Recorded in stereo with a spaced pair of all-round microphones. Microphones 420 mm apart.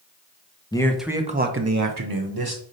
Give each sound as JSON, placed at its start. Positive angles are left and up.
{"t": 0.7, "sound": "a man speaking", "side_deg": 10, "distance_m": 0.7}